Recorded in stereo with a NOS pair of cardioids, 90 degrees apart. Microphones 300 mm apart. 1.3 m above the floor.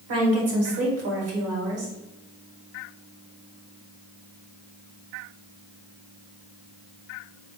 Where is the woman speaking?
55° right, 1.6 m.